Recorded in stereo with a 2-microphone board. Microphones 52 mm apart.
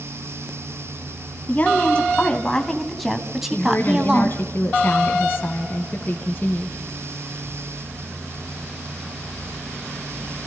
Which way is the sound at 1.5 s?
30° left (ahead or behind).